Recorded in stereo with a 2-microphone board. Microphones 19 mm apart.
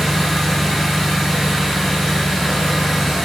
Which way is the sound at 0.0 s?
5° right (ahead or behind).